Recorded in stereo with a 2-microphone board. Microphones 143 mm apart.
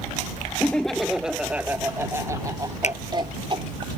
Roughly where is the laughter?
Centre.